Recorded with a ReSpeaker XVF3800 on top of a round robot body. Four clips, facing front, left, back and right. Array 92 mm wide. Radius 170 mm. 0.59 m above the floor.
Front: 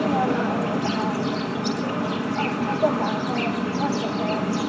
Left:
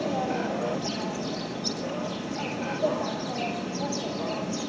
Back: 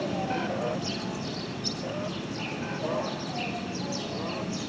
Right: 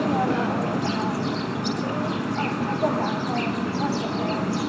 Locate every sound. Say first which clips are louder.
0.0 s an insect: right 5 dB, front 8 dB; 40° right, 1.1 m